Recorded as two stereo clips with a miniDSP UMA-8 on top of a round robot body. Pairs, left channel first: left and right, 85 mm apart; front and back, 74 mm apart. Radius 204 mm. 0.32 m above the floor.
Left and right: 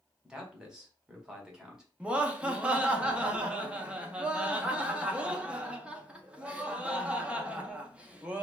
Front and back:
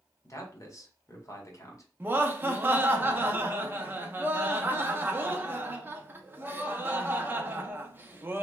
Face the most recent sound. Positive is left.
turn(degrees=-155)